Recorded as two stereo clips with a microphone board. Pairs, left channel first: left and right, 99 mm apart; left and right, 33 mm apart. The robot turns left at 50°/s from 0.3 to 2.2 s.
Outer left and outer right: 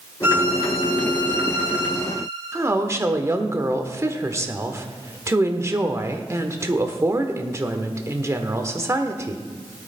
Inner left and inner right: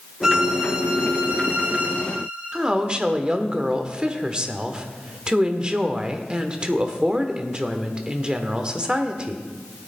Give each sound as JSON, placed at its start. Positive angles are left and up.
{"t": 0.2, "sound": "a violin", "azimuth_deg": -25, "distance_m": 1.6}
{"t": 2.5, "sound": "a woman speaking", "side_deg": -30, "distance_m": 1.2}